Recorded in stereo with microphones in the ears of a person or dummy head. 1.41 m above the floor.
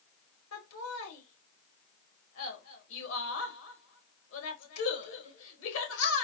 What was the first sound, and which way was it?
Laughter, 85° left.